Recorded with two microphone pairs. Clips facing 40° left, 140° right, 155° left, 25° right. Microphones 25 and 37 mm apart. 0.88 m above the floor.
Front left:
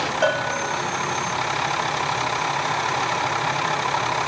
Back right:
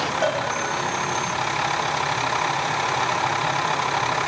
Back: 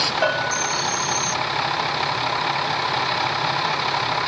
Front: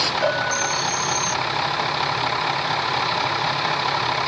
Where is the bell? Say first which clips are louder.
Front left 1 dB, back 1 dB; 120° left, 1.8 m.